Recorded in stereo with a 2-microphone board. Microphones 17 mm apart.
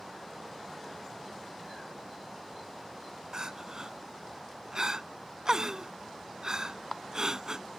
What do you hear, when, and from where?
3.3 s crying: 35° right (ahead or behind)